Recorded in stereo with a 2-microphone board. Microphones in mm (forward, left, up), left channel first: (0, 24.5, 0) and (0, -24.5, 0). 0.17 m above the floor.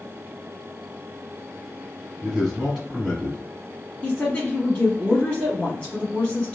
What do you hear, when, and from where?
2.2 s a man speaking: centre (ahead or behind), 1.7 m
4.0 s a woman speaking: 20° left (ahead or behind), 1.2 m